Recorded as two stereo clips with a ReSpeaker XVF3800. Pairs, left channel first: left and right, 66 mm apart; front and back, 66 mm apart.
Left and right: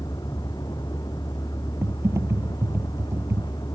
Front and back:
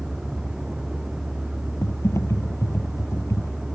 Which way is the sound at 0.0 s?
100° left.